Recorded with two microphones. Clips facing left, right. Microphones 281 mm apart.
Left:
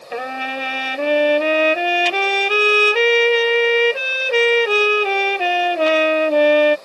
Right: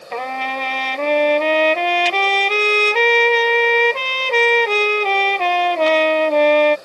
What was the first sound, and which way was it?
A trumpet, 10° left (ahead or behind).